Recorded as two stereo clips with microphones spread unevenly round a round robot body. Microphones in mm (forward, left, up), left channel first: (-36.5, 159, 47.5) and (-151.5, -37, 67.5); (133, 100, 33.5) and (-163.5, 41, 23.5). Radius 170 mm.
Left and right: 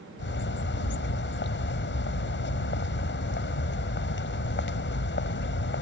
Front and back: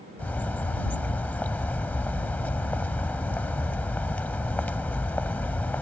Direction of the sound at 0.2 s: 95° left.